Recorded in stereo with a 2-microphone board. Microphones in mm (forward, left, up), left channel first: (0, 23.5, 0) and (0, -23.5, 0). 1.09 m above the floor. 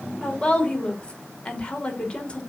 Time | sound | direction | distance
0.2 | a woman speaking | 20° left (ahead or behind) | 3 m